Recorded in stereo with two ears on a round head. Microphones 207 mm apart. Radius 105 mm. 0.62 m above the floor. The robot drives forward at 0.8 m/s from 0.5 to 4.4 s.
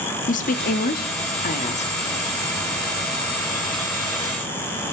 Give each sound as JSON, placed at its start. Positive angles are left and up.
{"t": 0.3, "sound": "a woman speaking", "side_deg": 35, "distance_m": 0.9}